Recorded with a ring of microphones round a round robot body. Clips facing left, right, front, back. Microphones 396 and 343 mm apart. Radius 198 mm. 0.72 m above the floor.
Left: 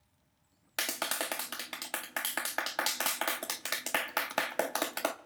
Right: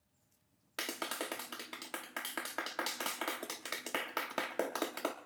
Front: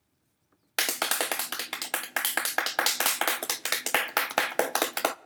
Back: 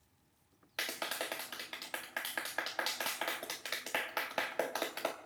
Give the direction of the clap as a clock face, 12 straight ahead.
11 o'clock.